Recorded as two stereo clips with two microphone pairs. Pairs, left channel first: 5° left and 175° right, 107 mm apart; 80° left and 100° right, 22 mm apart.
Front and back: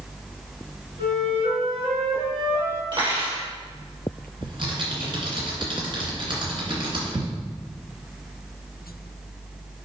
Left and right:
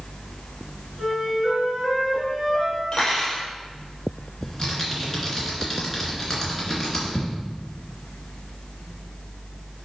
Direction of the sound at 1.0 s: 170° right.